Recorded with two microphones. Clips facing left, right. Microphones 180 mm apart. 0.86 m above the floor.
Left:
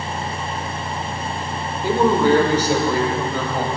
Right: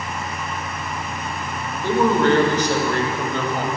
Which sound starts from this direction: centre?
A man speaking, at 1.8 s.